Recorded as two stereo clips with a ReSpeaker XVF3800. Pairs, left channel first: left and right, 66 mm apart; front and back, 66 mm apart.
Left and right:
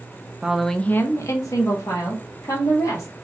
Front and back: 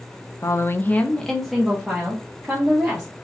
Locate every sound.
0.4 s a woman speaking: 15° right, 0.5 m; by 3.1 s 110° left, 1.8 m